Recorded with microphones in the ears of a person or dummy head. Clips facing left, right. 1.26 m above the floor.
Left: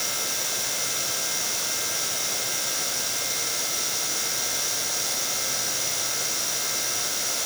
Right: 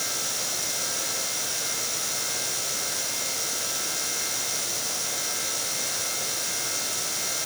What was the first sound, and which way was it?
Only background noise.